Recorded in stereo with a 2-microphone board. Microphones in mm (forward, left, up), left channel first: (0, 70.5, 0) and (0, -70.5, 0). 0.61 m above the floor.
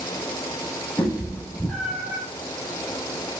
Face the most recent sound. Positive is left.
turn(degrees=-15)  # may be behind; listen again after turning